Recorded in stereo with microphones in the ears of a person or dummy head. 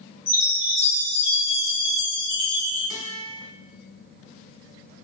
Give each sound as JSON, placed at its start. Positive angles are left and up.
{"t": 0.3, "sound": "a chime", "side_deg": 55, "distance_m": 1.3}
{"t": 2.9, "sound": "a guitar", "side_deg": -45, "distance_m": 1.3}